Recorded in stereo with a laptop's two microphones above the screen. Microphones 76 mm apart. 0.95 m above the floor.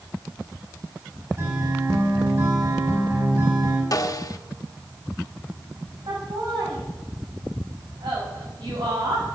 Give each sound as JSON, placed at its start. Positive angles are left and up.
{"t": 1.4, "sound": "a guitar", "side_deg": -35, "distance_m": 6.0}
{"t": 3.9, "sound": "a snare drum", "side_deg": 50, "distance_m": 0.9}
{"t": 6.1, "sound": "laughter", "side_deg": -70, "distance_m": 6.5}